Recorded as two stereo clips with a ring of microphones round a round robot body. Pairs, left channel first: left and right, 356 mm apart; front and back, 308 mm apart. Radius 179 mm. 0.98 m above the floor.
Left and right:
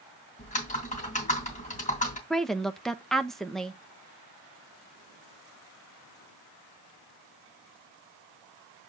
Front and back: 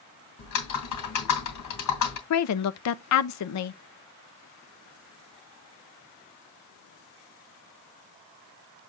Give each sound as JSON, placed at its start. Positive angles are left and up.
{"t": 0.4, "sound": "typing on a keyboard", "azimuth_deg": 20, "distance_m": 2.5}
{"t": 2.3, "sound": "a woman speaking", "azimuth_deg": 0, "distance_m": 0.7}